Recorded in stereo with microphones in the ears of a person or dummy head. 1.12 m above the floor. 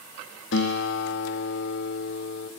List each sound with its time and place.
0.5 s a guitar: 70° left (ahead or behind), 1.8 m